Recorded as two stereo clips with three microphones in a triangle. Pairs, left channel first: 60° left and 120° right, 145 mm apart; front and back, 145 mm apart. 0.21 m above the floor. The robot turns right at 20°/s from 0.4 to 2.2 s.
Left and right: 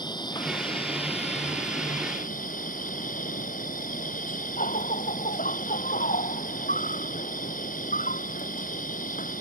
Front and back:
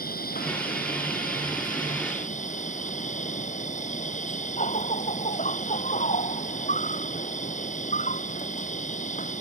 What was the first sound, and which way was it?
An insect, straight ahead.